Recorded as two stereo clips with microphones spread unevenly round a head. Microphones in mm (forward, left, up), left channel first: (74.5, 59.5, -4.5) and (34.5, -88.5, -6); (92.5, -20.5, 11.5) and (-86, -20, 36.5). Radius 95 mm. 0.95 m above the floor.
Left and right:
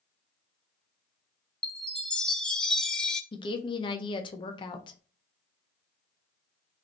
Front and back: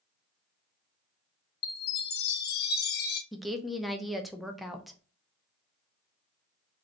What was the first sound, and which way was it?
A chime, 10° right.